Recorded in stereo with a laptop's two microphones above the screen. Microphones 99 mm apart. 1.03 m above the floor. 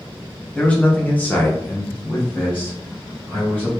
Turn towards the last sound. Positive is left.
turn(degrees=15)  # may be behind; listen again after turning